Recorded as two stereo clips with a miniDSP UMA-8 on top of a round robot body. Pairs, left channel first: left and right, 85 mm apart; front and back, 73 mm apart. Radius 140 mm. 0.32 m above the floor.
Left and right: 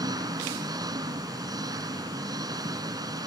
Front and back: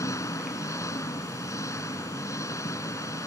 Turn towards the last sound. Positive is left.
turn(degrees=-50)